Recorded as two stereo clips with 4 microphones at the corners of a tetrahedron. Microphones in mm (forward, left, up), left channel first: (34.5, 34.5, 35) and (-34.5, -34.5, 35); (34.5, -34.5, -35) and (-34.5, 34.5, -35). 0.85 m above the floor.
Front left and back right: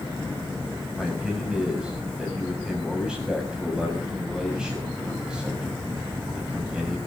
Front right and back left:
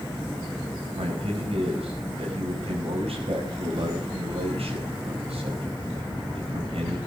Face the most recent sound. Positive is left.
turn(degrees=145)